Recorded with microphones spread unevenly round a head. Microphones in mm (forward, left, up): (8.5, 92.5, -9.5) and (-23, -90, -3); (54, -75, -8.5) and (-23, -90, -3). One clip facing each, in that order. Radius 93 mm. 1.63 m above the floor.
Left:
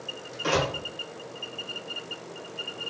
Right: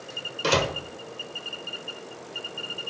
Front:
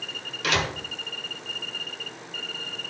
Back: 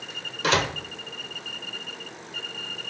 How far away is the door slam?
About 0.9 m.